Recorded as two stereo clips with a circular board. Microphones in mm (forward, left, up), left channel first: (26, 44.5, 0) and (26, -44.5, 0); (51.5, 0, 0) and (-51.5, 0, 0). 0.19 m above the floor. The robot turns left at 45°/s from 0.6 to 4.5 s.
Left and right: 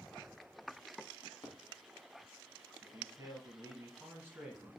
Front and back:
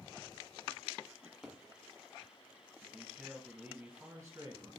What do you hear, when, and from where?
1.2 s a drawer: 105° left, 0.9 m; by 1.6 s 85° left, 0.9 m
2.8 s a man speaking: 80° right, 1.7 m; by 4.7 s 155° right, 1.7 m